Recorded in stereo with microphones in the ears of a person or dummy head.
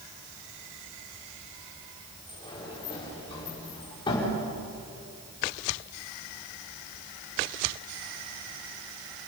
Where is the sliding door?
25° left (ahead or behind), 5.5 m.